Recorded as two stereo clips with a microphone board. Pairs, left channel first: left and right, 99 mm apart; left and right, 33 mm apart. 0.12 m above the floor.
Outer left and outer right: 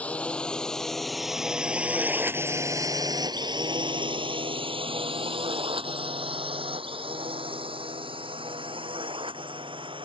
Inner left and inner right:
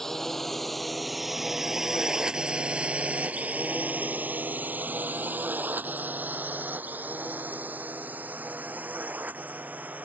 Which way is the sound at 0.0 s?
15° left (ahead or behind).